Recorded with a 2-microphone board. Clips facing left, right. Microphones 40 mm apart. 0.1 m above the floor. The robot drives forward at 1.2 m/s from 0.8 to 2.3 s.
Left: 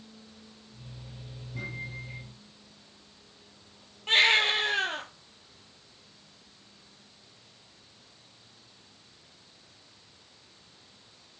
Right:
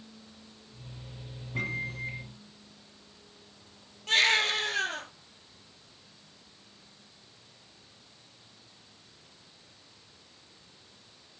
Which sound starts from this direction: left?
A baby crying, at 4.1 s.